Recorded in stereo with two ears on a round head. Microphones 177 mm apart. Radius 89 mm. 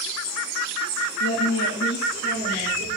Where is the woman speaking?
85° left, 1.2 m; by 2.9 s 40° left (ahead or behind), 2.5 m.